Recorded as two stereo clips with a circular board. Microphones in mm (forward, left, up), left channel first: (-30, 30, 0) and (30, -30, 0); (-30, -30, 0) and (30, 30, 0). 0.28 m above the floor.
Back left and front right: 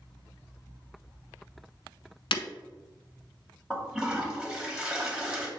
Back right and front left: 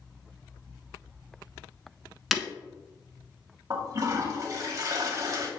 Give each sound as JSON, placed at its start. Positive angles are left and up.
{"t": 2.3, "sound": "breaking glass", "azimuth_deg": 135, "distance_m": 0.7}
{"t": 3.7, "sound": "a toilet flushing", "azimuth_deg": 30, "distance_m": 1.5}